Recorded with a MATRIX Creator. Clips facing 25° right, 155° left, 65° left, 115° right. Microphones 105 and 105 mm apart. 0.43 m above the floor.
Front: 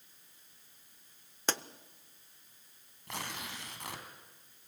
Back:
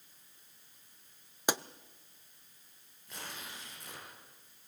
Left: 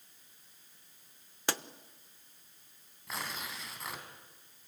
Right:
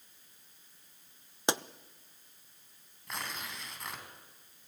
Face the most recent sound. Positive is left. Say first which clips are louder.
# front 5 dB, even
turn(degrees=-20)